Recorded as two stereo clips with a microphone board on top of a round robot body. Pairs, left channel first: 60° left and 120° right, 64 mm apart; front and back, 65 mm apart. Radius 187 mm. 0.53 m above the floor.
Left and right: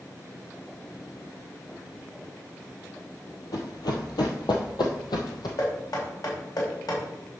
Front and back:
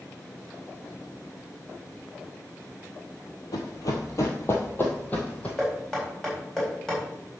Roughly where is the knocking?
Left.